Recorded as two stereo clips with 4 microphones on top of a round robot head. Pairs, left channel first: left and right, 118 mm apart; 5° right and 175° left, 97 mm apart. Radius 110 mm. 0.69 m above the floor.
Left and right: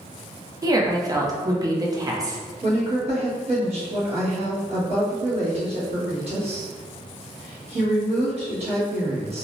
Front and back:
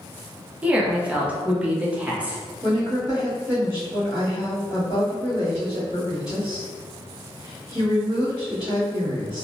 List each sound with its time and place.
0.6 s a woman speaking: 120° right, 0.7 m
2.6 s a woman speaking: 100° right, 1.5 m